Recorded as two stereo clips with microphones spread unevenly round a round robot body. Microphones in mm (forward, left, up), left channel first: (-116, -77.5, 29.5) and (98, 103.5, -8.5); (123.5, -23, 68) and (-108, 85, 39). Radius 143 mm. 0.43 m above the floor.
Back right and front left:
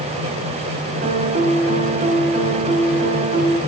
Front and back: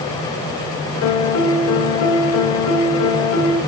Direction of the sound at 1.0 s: 20° right.